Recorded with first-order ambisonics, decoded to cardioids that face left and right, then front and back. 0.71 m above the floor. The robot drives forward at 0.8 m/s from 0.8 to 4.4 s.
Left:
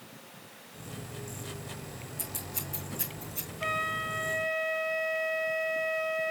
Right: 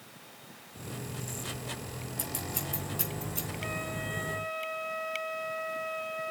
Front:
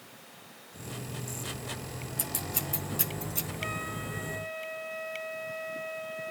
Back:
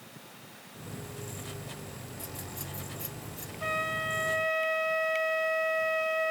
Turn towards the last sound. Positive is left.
turn(degrees=160)